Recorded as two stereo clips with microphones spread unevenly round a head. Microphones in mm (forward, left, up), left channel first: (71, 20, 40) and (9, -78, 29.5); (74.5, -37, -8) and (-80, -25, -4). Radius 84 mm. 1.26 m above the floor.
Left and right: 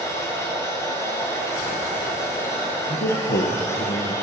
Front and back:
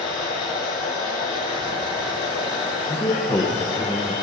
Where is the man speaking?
70° left, 0.9 m.